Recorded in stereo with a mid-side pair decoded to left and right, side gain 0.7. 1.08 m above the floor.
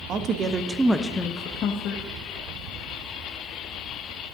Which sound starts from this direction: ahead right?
A woman speaking, at 0.1 s.